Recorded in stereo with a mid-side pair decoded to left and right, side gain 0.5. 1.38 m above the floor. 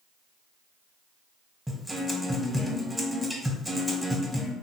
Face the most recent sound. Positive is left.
turn(degrees=-10)